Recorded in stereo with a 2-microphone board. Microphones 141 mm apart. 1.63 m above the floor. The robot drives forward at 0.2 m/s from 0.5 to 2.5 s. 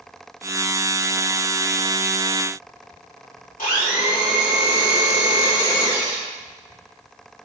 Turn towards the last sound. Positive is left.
turn(degrees=75)  # may be behind; listen again after turning